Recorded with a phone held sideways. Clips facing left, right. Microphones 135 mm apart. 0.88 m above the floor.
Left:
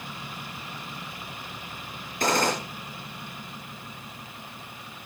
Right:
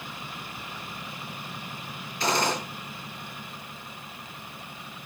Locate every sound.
2.2 s a gunshot: 50° left (ahead or behind), 5.5 m